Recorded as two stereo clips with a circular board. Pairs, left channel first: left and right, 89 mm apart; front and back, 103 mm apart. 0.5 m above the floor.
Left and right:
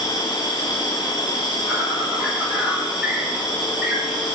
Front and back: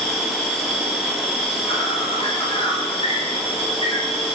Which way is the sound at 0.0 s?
10° right.